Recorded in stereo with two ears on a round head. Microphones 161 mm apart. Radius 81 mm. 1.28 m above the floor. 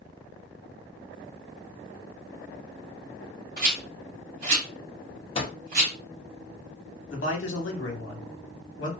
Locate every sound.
3.6 s a rattle: 45° right (ahead or behind), 1.4 m
5.3 s a microwave: 35° left (ahead or behind), 0.6 m
7.1 s a man speaking: 75° left (ahead or behind), 1.0 m